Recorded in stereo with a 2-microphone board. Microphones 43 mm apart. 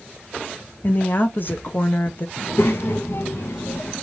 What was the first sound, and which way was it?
A woman speaking, 50° left (ahead or behind).